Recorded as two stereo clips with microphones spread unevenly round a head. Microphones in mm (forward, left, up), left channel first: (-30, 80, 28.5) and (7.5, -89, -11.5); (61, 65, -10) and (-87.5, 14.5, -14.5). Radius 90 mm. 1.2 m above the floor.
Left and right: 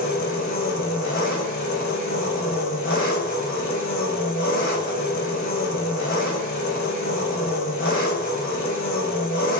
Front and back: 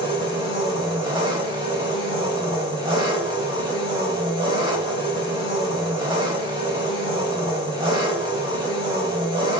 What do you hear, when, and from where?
0.0 s an engine running: 140° left, 3.5 m